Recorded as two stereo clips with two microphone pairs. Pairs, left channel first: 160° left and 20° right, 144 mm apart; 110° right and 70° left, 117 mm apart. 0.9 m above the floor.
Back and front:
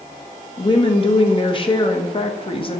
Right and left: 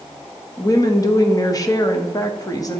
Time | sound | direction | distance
0.6 | a woman speaking | 160° right | 0.8 m